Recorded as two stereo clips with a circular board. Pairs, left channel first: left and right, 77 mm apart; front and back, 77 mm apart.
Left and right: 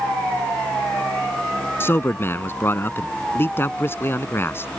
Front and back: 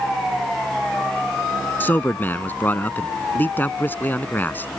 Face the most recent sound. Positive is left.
turn(degrees=50)